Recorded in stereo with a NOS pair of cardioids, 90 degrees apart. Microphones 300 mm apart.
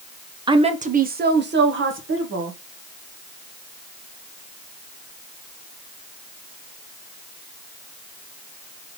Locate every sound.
0.5 s a woman speaking: 15° right, 0.8 m; by 2.6 s 45° right, 1.7 m